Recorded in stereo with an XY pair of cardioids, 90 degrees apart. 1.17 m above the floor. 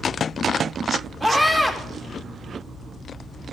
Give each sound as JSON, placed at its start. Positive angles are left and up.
{"t": 1.2, "sound": "a scream", "azimuth_deg": -10, "distance_m": 4.0}